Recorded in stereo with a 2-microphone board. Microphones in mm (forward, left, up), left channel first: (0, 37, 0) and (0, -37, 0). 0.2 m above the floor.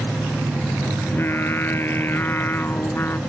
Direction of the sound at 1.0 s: 30° left (ahead or behind).